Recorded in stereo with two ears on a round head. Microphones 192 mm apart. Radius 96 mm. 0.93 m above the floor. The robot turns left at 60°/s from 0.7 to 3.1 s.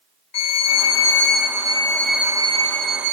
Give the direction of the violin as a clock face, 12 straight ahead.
9 o'clock.